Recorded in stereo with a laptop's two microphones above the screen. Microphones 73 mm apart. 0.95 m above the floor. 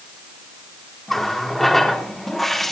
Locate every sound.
1.1 s a running tap: centre (ahead or behind), 1.3 m